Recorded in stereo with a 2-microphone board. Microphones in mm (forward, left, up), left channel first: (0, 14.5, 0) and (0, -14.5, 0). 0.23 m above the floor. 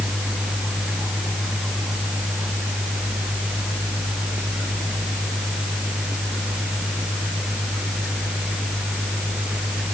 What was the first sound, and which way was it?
Only background noise.